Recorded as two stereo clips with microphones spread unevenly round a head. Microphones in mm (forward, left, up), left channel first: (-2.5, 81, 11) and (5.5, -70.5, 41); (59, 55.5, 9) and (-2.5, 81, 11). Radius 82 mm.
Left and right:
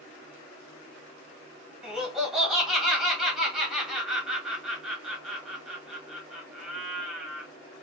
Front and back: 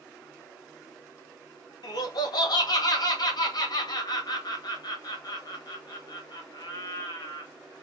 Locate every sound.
1.8 s laughter: straight ahead, 1.8 m